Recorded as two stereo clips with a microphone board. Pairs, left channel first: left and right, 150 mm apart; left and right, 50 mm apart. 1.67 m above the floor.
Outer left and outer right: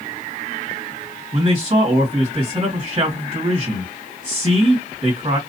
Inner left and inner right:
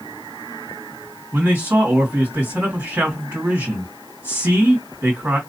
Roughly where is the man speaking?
Right.